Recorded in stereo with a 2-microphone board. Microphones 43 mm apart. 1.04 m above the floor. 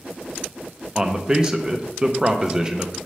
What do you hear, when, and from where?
0.9 s a man speaking: 20° right (ahead or behind), 0.6 m